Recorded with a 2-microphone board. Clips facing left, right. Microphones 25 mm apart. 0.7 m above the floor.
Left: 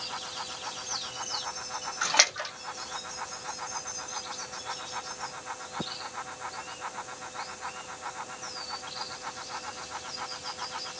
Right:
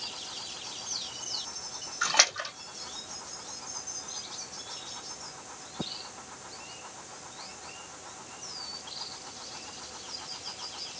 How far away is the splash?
About 1.2 m.